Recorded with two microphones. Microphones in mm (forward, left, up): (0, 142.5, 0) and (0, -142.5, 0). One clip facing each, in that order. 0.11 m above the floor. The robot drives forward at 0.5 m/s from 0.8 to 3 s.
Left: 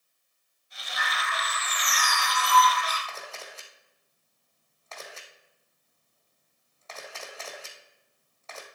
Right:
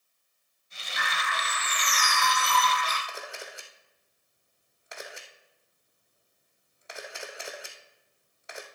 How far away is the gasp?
No gasp in this recording.